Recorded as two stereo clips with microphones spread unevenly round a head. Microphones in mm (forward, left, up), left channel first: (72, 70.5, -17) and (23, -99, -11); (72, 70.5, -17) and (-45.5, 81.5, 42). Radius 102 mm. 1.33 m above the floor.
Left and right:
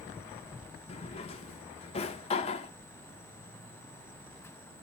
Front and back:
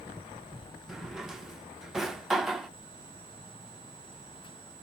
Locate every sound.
0.9 s a drawer: 120° left, 0.6 m